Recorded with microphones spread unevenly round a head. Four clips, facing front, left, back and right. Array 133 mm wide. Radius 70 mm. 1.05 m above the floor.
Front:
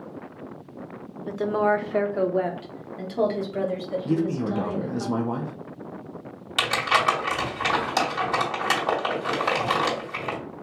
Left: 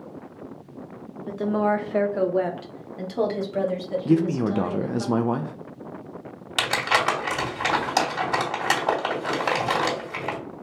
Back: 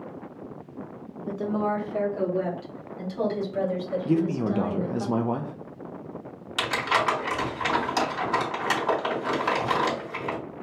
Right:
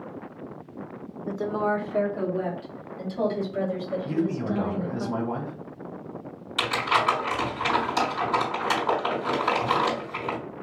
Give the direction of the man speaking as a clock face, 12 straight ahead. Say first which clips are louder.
Left 7 dB, even; 9 o'clock.